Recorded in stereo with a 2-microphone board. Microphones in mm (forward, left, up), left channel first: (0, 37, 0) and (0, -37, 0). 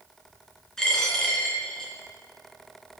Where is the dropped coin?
10° left (ahead or behind), 3.5 m.